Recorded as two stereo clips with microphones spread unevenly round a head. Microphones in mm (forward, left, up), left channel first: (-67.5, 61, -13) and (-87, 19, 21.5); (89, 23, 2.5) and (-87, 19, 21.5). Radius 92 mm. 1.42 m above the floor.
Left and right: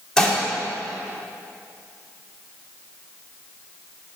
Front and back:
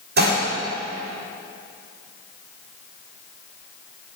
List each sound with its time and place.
0.2 s dishes clattering: 155° left, 2.5 m